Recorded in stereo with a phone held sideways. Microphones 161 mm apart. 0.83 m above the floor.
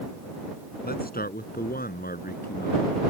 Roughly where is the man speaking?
Left.